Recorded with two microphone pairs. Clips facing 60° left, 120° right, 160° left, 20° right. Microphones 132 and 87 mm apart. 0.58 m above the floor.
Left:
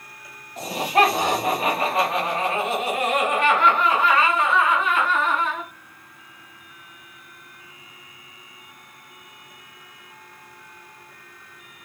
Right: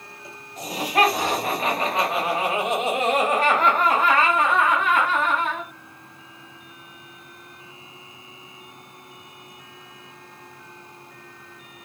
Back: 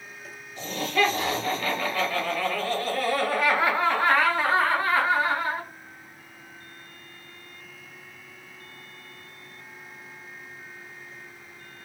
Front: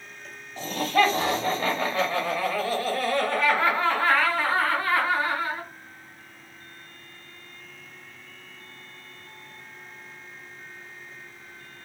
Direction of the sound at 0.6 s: 15° left.